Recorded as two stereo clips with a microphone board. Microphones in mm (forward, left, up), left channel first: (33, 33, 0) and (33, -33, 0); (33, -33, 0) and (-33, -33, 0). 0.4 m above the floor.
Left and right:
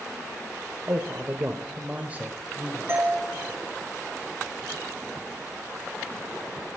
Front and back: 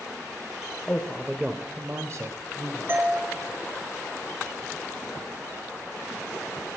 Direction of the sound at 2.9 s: 130° right.